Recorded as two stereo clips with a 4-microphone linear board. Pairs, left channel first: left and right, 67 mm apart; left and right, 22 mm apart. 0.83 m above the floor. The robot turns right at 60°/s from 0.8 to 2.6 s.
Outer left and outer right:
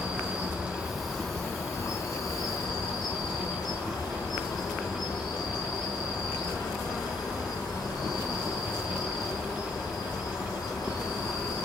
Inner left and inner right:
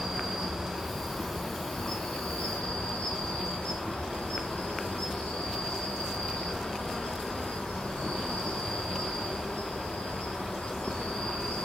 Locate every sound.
0.0 s an insect: 20° right, 1.0 m; by 11.7 s 90° left, 1.0 m